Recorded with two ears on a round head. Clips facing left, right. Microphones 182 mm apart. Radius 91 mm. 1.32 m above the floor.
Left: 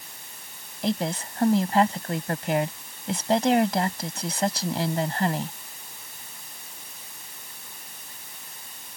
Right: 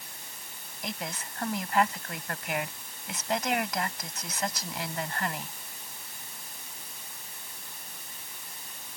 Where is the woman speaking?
30° left (ahead or behind).